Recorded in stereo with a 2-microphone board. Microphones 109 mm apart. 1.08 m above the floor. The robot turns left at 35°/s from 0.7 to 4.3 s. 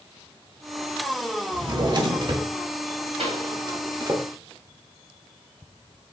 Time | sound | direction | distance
1.5 | a drawer | 35° right (ahead or behind) | 1.1 m
3.2 | a pop | 60° right (ahead or behind) | 2.5 m